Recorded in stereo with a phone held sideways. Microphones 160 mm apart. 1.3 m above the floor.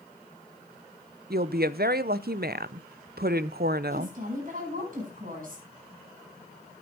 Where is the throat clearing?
I don't hear throat clearing.